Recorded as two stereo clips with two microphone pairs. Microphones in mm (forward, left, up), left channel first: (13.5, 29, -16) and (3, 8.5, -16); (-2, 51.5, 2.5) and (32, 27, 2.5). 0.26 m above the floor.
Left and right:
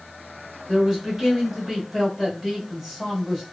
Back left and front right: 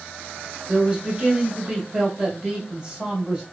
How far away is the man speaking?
About 1.6 m.